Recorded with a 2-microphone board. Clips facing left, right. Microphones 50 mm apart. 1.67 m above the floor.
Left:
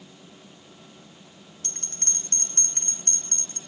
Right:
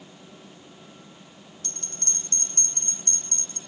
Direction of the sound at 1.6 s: 50° left (ahead or behind).